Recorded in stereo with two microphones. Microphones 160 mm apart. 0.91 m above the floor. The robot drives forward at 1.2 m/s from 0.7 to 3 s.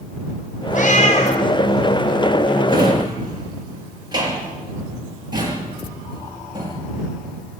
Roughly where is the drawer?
Right.